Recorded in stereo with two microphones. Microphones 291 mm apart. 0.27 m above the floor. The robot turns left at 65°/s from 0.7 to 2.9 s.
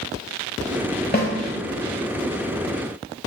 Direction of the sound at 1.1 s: 35° left (ahead or behind).